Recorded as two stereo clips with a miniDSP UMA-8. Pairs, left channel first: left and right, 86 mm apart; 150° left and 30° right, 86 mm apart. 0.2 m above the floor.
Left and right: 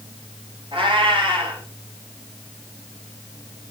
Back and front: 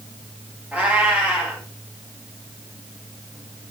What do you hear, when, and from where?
0.7 s a cat meowing: 105° right, 6.5 m